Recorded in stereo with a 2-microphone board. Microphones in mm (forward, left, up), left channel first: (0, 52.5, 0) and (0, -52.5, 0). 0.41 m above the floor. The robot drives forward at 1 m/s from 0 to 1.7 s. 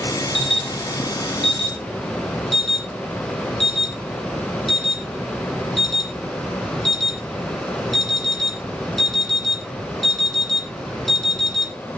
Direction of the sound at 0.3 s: Centre (ahead or behind).